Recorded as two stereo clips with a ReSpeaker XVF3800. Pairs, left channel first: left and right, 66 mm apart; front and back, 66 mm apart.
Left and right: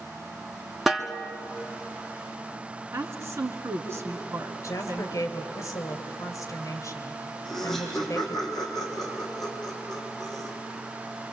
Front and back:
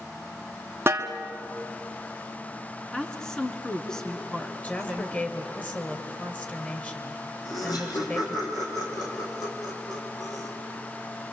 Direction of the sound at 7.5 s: 5° left.